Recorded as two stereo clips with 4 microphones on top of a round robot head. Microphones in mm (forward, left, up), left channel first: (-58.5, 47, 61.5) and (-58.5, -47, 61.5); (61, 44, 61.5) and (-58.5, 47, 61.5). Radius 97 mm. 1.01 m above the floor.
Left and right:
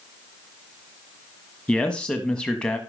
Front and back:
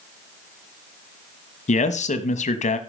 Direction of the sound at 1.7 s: 10° left.